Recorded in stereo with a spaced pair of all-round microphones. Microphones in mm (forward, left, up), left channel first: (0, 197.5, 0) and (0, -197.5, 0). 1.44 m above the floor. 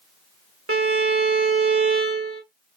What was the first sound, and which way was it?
A violin, 35° right (ahead or behind).